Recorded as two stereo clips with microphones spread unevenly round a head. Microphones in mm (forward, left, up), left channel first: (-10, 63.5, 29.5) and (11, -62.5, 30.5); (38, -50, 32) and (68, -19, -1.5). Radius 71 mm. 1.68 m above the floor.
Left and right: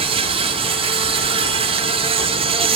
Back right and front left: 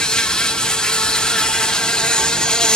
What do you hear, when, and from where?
0.0 s an insect: 40° right, 0.8 m